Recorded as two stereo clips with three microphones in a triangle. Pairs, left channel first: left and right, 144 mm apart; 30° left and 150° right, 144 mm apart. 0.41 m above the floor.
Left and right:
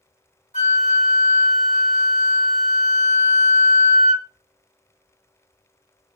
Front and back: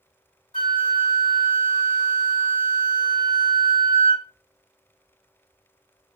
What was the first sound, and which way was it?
A flute, 65° left.